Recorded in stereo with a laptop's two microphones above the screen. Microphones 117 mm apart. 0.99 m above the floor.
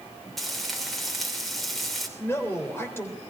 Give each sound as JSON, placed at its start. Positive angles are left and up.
{"t": 0.4, "sound": "frying", "side_deg": 0, "distance_m": 3.0}
{"t": 2.2, "sound": "a man speaking", "side_deg": 20, "distance_m": 3.5}